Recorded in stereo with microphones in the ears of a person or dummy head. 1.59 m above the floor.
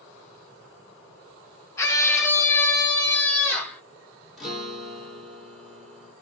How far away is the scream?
About 1.5 m.